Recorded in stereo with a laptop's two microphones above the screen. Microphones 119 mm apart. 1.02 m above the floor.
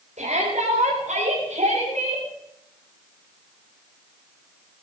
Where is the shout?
75° right (ahead or behind), 4.5 m; by 2.2 s 80° right, 6.5 m.